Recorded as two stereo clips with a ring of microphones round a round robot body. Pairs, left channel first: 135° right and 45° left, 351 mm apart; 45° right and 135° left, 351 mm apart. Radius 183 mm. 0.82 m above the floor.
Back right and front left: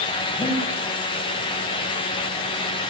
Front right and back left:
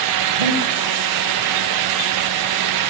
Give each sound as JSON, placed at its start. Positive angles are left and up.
{"t": 0.4, "sound": "breathing", "azimuth_deg": 135, "distance_m": 4.5}